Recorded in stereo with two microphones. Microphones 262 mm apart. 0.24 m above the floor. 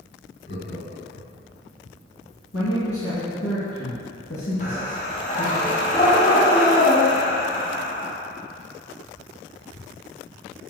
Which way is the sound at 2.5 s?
65° left (ahead or behind).